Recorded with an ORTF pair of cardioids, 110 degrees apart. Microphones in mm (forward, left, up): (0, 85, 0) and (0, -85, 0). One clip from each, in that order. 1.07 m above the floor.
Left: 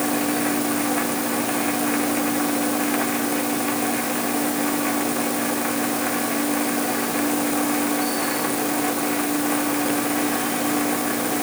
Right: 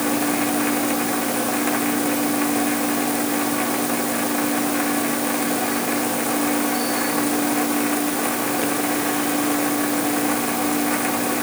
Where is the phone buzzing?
I don't hear a phone buzzing.